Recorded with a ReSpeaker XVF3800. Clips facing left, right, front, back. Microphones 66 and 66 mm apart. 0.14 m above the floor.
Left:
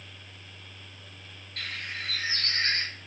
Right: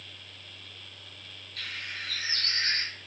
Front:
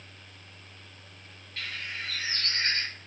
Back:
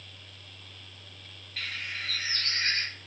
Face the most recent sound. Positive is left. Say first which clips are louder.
# left 2 dB, even
turn(degrees=100)